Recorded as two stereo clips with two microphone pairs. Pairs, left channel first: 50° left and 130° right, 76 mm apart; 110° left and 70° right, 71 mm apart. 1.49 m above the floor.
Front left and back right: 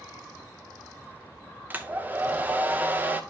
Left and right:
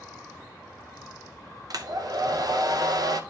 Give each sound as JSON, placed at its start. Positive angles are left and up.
{"t": 1.7, "sound": "a hair dryer", "azimuth_deg": -70, "distance_m": 0.6}